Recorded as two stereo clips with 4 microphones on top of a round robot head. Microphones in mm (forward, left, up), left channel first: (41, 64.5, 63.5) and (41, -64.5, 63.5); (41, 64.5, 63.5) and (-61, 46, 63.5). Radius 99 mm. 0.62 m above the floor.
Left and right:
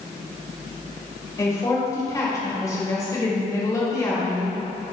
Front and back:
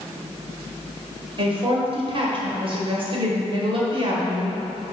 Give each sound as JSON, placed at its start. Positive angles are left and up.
{"t": 1.4, "sound": "a woman speaking", "azimuth_deg": 160, "distance_m": 2.5}